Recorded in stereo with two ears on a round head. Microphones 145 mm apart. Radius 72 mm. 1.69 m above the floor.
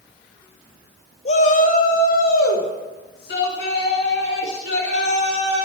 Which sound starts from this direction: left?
A shout, at 1.2 s.